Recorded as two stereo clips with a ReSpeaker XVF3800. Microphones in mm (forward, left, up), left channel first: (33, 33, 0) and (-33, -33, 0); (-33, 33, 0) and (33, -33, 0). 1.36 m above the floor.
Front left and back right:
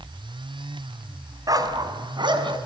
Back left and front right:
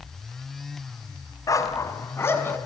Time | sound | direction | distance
1.5 | a dog barking | straight behind | 2.5 m